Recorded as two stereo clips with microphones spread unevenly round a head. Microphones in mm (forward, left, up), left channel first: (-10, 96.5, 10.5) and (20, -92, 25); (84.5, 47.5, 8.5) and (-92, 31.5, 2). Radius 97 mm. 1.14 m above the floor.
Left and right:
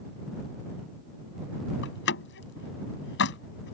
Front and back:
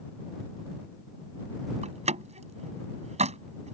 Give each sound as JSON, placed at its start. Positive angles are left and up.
{"t": 1.8, "sound": "a door slam", "azimuth_deg": 130}